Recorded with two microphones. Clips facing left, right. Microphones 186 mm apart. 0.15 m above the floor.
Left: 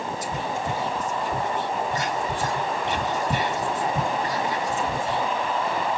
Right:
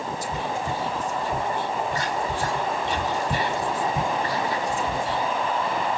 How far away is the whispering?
About 1.7 m.